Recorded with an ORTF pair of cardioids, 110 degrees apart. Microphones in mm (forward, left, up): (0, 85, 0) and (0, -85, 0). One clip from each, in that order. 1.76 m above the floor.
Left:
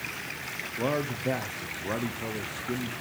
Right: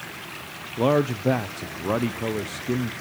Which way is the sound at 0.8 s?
35° right.